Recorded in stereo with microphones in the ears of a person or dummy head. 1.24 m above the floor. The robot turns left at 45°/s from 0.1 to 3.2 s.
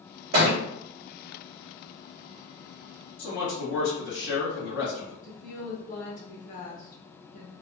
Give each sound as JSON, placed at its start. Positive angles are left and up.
{"t": 0.3, "sound": "a thud", "side_deg": -55, "distance_m": 2.0}
{"t": 3.2, "sound": "a man speaking", "side_deg": 55, "distance_m": 1.6}
{"t": 5.2, "sound": "a woman speaking", "side_deg": 40, "distance_m": 1.7}